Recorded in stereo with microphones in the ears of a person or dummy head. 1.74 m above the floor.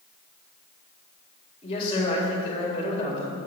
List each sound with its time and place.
1.6 s a man speaking: 25° left (ahead or behind), 1.9 m